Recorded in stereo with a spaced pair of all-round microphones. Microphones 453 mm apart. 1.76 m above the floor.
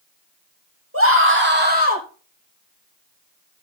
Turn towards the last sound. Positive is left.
turn(degrees=-15)  # may be behind; listen again after turning